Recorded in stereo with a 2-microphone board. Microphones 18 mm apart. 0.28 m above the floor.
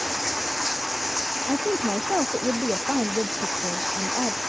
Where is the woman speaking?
80° right.